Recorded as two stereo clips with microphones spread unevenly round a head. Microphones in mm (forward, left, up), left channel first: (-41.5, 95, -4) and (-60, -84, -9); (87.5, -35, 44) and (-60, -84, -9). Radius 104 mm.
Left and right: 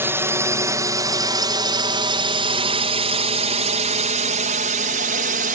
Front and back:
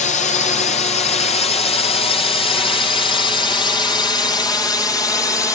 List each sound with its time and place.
0.0 s a drone: 25° right; by 5.6 s 60° right